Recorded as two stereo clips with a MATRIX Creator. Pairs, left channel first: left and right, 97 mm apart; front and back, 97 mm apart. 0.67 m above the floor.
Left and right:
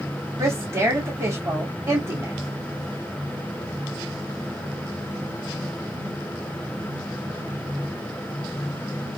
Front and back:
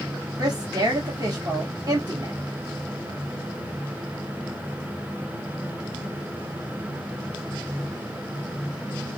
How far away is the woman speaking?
About 1.3 m.